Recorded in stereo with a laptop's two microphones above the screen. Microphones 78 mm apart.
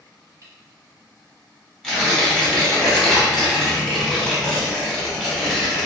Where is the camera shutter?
45° right (ahead or behind), 0.9 m.